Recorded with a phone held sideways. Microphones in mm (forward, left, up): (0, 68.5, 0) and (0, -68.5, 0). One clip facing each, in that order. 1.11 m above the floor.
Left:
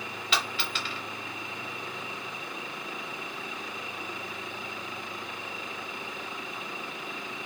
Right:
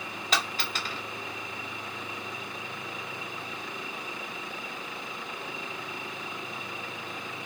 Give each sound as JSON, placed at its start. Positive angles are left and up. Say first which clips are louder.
{"t": 0.3, "sound": "a dropped coin", "louder": "right 1 dB", "side_deg": -40, "distance_m": 0.9}